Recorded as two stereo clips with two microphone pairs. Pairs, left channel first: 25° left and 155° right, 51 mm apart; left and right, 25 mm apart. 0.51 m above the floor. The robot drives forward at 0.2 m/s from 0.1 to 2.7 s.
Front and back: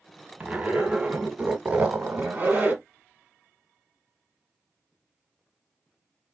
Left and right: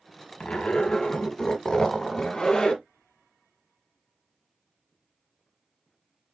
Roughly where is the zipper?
Behind left.